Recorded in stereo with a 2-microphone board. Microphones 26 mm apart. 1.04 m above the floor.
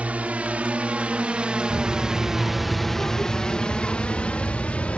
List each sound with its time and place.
0.0 s a drone: 65° right (ahead or behind); by 5.0 s 60° left (ahead or behind)
1.7 s a child speaking: 55° left (ahead or behind)